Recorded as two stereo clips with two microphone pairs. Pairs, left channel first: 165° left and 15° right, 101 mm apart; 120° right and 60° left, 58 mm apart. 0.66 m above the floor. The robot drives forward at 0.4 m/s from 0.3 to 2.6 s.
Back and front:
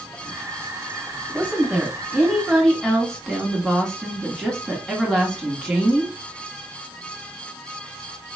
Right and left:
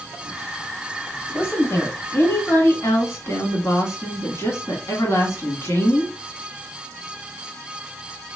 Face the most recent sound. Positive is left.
turn(degrees=-110)